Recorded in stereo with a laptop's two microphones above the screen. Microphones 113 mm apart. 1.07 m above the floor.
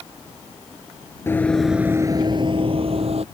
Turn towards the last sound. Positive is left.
turn(degrees=-65)  # may be behind; listen again after turning